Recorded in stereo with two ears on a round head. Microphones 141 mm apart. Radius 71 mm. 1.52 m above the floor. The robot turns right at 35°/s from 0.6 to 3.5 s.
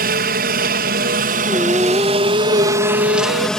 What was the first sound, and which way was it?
A helicopter, 95° right.